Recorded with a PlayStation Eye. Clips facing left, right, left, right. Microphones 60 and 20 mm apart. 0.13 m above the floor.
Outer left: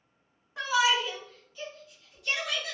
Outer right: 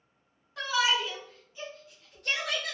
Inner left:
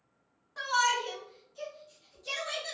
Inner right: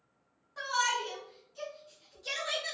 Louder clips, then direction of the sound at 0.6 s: Outer left 2 dB, inner left 3 dB; 20° left (ahead or behind).